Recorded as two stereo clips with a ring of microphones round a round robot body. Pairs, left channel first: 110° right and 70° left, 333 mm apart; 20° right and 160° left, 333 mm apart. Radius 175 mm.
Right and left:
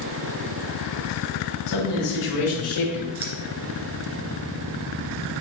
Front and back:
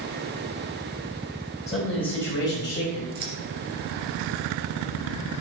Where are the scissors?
120° left, 2.5 m.